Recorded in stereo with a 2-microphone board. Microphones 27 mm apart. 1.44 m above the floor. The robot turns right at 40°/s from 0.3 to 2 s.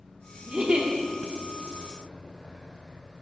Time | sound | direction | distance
0.5 | a giggle | 40° right (ahead or behind) | 1.4 m